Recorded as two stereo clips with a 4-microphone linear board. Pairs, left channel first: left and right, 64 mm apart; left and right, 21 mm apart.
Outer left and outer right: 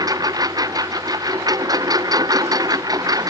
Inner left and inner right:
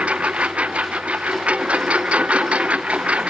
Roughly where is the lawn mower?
Right.